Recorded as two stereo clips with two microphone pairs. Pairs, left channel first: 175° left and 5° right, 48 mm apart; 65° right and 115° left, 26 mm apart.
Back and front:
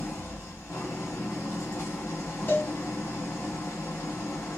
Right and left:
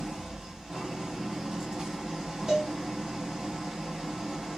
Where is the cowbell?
Straight behind, 1.6 m.